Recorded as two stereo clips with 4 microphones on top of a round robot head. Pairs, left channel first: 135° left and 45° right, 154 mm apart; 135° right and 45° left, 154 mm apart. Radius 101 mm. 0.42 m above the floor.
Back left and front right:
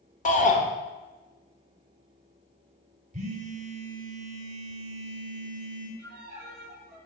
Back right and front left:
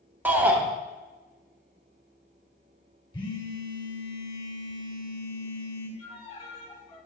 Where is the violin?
75° right, 2 m.